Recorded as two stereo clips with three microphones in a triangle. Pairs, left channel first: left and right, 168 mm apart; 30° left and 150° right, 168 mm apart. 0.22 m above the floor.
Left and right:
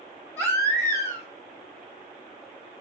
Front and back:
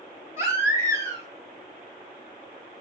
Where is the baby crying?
155° left, 0.8 m.